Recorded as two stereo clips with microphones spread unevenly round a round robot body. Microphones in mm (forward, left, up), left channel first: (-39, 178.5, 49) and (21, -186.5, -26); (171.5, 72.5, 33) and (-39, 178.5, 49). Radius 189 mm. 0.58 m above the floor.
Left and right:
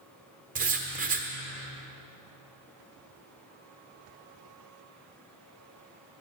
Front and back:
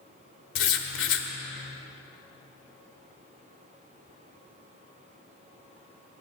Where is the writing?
20° right, 1.0 m.